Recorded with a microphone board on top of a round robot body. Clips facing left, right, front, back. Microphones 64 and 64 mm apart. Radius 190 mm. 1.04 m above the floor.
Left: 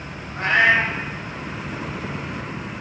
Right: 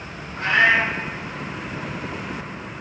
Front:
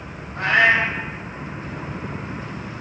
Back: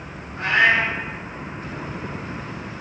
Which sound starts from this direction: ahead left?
A cat meowing, at 0.3 s.